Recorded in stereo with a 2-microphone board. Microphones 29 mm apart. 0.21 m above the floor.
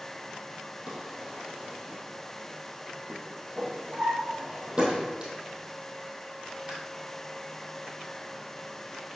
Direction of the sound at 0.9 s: 30° right (ahead or behind).